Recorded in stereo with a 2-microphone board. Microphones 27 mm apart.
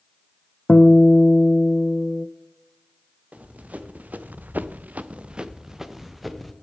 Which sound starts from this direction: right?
Running footsteps, at 3.3 s.